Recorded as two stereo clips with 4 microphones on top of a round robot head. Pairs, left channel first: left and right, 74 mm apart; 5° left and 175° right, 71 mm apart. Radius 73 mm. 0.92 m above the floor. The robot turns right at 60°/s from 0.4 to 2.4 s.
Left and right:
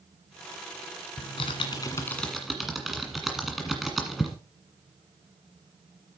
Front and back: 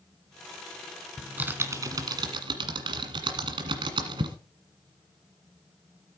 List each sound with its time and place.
1.2 s typing on a keyboard: 105° left, 1.6 m; by 4.4 s straight behind, 1.6 m